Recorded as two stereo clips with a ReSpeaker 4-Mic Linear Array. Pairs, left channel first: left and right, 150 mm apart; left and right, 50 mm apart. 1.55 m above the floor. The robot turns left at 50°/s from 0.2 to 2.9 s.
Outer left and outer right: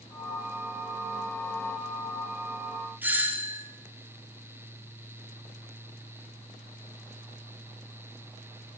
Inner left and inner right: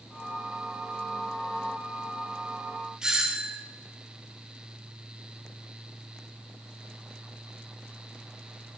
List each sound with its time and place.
3.0 s a doorbell: 10° right (ahead or behind), 0.7 m